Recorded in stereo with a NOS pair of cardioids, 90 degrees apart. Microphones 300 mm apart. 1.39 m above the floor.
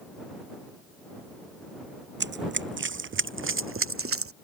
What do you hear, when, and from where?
2.2 s running footsteps: 40° right; by 4.3 s 50° right